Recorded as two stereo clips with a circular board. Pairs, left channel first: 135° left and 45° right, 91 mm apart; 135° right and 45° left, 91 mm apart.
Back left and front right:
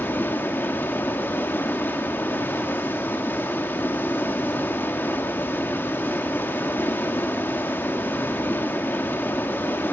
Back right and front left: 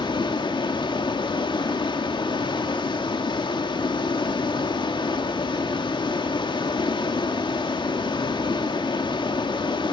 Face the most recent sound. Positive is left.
turn(degrees=-160)